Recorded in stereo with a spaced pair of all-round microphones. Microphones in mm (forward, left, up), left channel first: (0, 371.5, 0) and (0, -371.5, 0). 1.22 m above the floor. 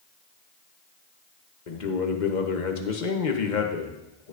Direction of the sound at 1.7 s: 75° left (ahead or behind).